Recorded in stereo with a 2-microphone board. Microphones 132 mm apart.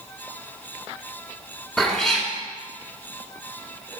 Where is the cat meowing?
5° left (ahead or behind), 1.3 m.